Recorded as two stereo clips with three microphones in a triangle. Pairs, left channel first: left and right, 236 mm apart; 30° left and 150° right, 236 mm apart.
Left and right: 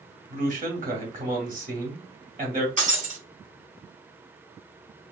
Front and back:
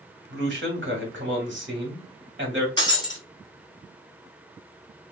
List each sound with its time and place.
0.3 s a man speaking: 135° right, 1.8 m
2.8 s breaking glass: 40° right, 1.5 m